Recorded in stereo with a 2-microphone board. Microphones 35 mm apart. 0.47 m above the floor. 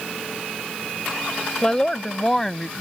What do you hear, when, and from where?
1.6 s a woman speaking: 15° left (ahead or behind); by 2.7 s 5° left (ahead or behind)